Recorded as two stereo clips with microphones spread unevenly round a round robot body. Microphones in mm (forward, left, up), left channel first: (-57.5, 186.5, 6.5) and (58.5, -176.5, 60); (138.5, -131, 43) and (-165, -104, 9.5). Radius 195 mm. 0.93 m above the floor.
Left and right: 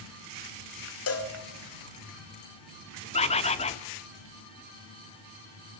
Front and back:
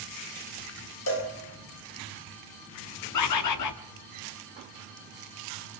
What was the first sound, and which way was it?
A cowbell, 55° left.